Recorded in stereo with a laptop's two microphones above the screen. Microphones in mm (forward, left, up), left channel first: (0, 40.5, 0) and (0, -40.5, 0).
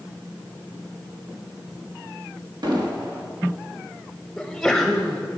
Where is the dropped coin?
I don't hear a dropped coin.